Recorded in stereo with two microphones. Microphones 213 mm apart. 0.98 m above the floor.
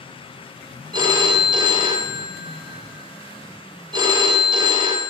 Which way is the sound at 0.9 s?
20° right (ahead or behind).